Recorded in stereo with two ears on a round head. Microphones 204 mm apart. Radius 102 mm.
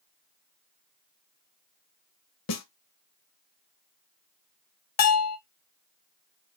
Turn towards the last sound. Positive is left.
turn(degrees=70)  # may be behind; listen again after turning